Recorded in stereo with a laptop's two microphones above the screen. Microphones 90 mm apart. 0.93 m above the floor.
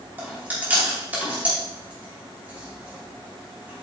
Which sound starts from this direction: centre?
Chewing, at 0.2 s.